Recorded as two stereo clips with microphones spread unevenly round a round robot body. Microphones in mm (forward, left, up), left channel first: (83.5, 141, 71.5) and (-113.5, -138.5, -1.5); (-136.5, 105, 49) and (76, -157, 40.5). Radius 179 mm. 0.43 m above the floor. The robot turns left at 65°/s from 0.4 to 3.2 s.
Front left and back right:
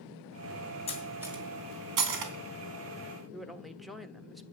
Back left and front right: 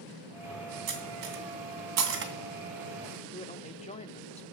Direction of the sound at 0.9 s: 20° right.